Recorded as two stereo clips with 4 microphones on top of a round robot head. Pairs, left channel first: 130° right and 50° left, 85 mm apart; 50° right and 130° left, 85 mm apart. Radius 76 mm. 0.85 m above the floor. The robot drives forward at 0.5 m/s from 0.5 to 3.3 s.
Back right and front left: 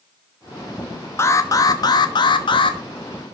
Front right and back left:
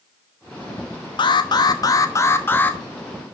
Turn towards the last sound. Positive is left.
turn(degrees=-135)